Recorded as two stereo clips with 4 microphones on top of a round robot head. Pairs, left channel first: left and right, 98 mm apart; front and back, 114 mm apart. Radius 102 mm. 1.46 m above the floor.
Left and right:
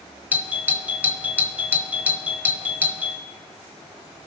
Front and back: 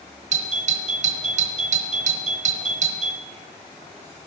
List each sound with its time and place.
0.3 s a doorbell: 165° right, 1.0 m